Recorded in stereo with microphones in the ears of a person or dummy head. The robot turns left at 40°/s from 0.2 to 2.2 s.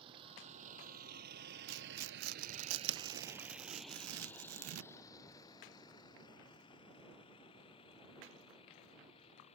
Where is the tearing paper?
80° right; by 5.1 s 75° right (ahead or behind).